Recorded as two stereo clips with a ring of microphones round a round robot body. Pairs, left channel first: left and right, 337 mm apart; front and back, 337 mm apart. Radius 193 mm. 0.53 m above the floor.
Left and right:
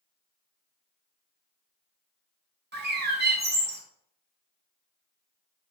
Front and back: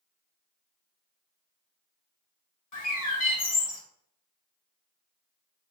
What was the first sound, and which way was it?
A bird, 35° right.